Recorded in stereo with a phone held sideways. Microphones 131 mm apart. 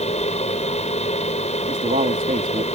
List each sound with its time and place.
0.0 s a fan: 55° left (ahead or behind)
1.7 s a man speaking: 75° right (ahead or behind)